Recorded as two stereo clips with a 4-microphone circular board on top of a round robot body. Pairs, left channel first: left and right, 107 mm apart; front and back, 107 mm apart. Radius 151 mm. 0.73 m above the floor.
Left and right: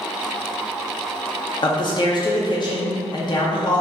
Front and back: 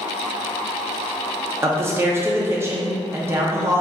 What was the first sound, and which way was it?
A man speaking, 120° left.